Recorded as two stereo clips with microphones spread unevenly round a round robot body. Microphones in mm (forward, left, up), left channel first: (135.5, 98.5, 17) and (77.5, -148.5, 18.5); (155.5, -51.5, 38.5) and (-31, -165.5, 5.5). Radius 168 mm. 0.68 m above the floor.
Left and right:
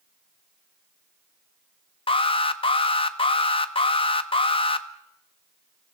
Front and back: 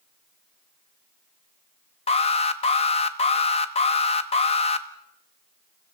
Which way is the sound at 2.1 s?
65° left.